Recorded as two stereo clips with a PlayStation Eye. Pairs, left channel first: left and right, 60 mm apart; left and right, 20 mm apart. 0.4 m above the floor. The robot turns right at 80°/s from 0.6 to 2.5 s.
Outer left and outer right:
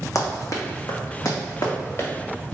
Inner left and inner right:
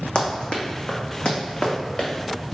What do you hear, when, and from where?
0.1 s running footsteps: 65° left (ahead or behind), 1.1 m; by 2.1 s 35° left (ahead or behind), 1.9 m